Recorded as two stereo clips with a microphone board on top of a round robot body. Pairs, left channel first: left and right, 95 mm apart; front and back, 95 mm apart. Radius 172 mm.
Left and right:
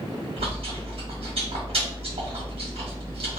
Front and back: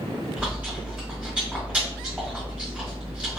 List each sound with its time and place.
0.4 s chewing: 105° right, 1.7 m